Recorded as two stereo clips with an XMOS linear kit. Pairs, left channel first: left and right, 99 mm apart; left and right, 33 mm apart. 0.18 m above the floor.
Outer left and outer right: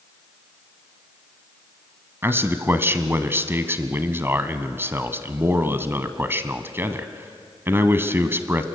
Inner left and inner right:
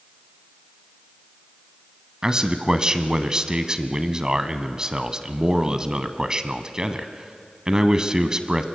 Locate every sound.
2.2 s a man speaking: 25° right (ahead or behind), 1.2 m